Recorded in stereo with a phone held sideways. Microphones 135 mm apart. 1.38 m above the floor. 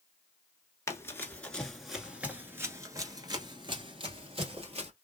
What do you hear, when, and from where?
0.9 s running footsteps: 20° left (ahead or behind), 1.4 m; by 4.9 s 50° right (ahead or behind), 2 m